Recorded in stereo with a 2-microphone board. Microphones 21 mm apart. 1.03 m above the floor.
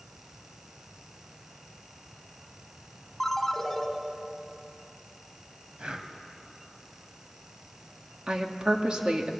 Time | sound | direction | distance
3.2 | a ringtone | 15° left (ahead or behind) | 2.5 m
5.8 | breathing | 50° right (ahead or behind) | 1.8 m
8.3 | a woman speaking | 45° right (ahead or behind) | 2 m